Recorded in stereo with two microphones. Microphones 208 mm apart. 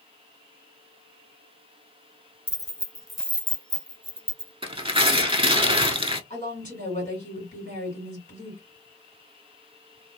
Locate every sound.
2.5 s keys jangling: 20° left (ahead or behind), 0.7 m; by 4.5 s 30° right (ahead or behind), 1.0 m
4.6 s tearing paper: 25° right (ahead or behind), 0.6 m
6.3 s a woman speaking: 35° left (ahead or behind), 2 m